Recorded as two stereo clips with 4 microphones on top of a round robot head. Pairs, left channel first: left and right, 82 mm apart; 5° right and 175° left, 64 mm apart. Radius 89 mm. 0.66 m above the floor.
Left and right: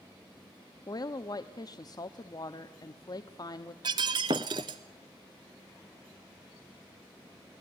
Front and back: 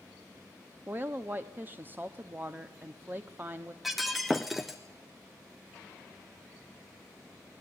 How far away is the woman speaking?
About 1.2 m.